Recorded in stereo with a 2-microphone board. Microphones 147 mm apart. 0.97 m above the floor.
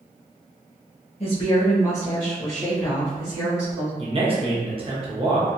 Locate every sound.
1.2 s a woman speaking: 45° left (ahead or behind), 0.7 m; by 3.9 s 10° right (ahead or behind), 1.7 m
4.0 s a man speaking: 40° right (ahead or behind), 0.8 m